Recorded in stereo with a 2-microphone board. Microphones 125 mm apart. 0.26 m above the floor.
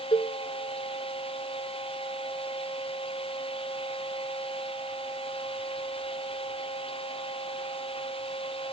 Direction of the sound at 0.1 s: 45° left (ahead or behind).